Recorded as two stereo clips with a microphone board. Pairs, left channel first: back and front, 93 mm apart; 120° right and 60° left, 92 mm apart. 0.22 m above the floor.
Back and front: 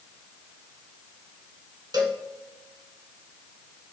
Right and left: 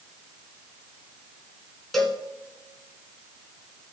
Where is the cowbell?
35° right, 2 m.